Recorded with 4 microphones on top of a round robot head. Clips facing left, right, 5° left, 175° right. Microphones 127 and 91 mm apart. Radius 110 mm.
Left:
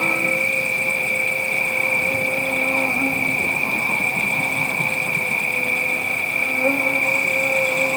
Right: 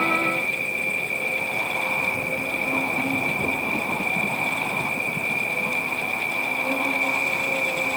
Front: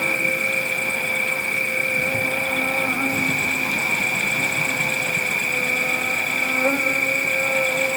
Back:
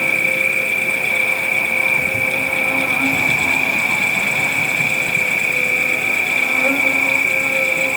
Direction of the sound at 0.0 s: 80° left.